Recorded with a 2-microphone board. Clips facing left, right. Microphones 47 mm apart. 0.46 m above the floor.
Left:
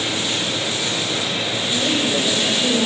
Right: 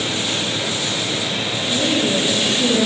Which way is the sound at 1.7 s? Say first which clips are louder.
Right 2 dB; 75° right (ahead or behind).